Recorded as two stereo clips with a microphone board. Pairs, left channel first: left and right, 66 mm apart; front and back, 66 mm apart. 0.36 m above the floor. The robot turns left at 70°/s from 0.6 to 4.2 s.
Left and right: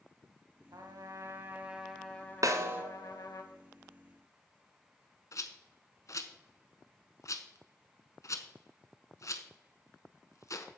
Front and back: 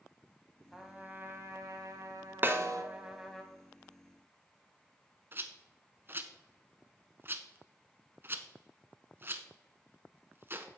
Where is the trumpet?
95° right, 1.2 m; by 3.4 s 75° left, 1.2 m.